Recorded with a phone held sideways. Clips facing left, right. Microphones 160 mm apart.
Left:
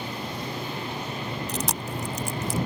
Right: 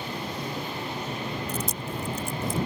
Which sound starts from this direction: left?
Chewing, at 1.5 s.